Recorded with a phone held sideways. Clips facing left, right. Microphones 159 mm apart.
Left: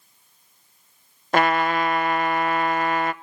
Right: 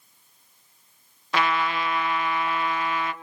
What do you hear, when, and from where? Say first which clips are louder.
1.3 s a trumpet: left 5 dB; 50° left (ahead or behind), 0.8 m